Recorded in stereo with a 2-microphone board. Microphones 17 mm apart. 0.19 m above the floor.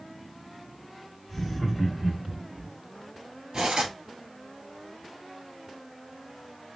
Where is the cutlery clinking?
55° right (ahead or behind), 1.7 m.